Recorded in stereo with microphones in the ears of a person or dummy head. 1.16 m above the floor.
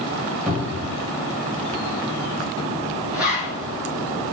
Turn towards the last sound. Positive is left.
turn(degrees=-5)  # may be behind; listen again after turning